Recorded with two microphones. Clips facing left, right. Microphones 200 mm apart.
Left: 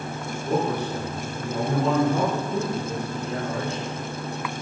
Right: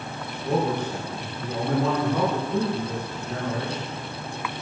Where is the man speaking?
5° left (ahead or behind), 5 m; by 3.9 s 25° left (ahead or behind), 5.5 m.